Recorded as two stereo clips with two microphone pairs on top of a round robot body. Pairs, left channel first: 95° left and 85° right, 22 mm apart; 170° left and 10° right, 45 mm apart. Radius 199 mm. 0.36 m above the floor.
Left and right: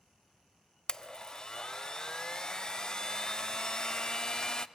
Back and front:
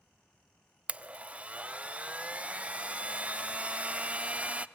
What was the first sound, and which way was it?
A blender, 45° left.